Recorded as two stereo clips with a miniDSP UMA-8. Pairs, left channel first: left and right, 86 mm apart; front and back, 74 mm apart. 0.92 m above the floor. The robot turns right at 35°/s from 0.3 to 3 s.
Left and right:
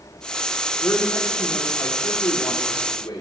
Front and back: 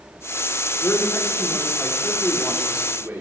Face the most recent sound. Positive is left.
turn(degrees=120)